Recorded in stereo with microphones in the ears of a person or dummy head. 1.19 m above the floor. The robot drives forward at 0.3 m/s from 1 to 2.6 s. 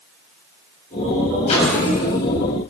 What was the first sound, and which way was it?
A microwave, 40° left (ahead or behind).